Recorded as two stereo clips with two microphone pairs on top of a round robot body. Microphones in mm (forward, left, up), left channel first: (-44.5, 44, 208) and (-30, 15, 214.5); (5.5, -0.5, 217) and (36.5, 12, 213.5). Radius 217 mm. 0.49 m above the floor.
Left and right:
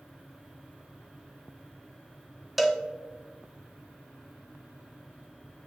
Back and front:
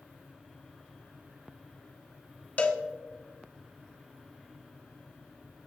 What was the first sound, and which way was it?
A cowbell, 165° right.